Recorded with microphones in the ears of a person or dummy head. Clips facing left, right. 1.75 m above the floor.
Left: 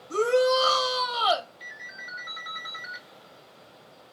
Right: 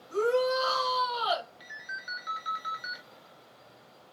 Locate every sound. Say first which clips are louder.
0.1 s a shout: left 4 dB; 75° left (ahead or behind), 1.5 m
1.6 s a ringtone: left 1 dB; 20° right (ahead or behind), 1.5 m